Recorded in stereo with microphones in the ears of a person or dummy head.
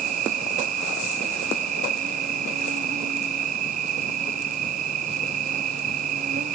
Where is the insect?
45° right (ahead or behind), 0.9 m.